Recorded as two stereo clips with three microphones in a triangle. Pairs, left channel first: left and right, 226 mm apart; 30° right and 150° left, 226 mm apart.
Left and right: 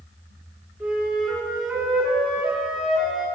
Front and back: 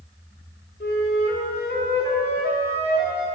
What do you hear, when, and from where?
0.8 s a flute: 5° right, 0.9 m